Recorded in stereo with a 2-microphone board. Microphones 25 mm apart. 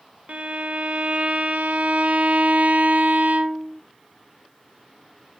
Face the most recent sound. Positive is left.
turn(degrees=-70)  # may be behind; listen again after turning